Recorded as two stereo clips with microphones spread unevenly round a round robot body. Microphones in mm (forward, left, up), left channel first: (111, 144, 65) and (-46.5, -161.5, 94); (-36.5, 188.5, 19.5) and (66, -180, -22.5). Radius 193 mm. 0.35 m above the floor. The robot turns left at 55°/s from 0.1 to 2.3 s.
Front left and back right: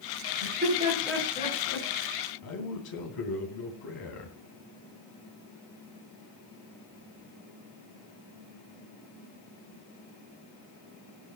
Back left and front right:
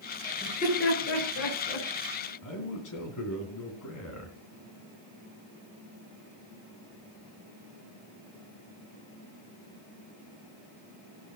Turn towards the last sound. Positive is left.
turn(degrees=60)